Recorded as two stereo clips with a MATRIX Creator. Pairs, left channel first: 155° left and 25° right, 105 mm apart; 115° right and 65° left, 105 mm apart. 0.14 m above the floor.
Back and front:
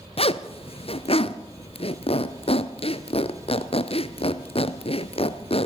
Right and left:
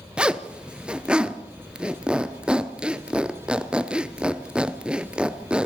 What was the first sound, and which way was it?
A zipper, 150° left.